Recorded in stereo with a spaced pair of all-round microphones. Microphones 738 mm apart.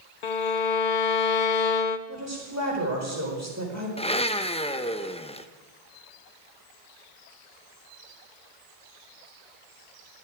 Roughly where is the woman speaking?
Centre.